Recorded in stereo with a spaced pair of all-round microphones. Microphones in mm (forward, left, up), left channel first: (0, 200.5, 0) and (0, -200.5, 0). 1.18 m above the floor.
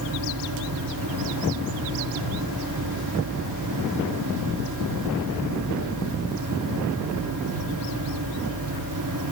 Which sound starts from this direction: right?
A fan, at 0.0 s.